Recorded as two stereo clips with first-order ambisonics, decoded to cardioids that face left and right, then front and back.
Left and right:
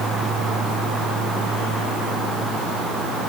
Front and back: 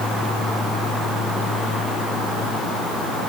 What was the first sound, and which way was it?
Only background noise.